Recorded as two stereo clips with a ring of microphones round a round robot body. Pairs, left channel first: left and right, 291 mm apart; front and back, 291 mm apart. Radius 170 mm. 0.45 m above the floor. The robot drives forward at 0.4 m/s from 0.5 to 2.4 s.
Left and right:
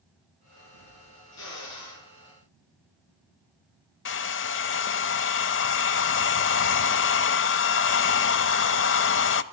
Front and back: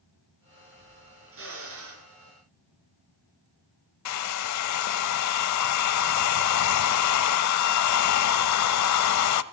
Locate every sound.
1.3 s a drill: 135° left, 6 m
4.0 s a hair dryer: 35° left, 0.6 m